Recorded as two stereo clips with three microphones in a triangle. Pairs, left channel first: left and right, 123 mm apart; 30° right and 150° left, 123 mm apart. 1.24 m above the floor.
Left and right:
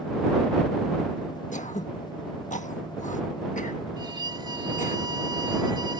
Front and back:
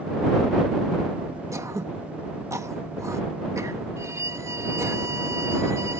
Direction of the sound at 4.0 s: 145° right.